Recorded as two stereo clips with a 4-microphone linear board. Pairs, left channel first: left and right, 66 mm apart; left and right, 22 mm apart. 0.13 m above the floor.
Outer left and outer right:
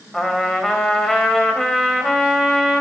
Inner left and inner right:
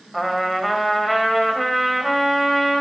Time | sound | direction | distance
0.1 | a trumpet | 5° left (ahead or behind) | 3.5 m